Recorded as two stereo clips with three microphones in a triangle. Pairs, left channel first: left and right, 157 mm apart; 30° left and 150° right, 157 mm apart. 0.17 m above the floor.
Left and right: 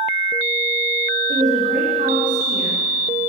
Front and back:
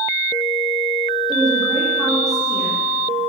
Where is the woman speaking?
55° right, 9 m.